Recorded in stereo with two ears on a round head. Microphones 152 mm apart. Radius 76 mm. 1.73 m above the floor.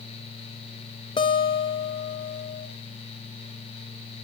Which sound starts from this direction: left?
A guitar, at 1.2 s.